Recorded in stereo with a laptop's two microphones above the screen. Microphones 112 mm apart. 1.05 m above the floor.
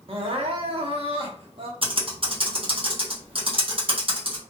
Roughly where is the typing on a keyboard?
Right.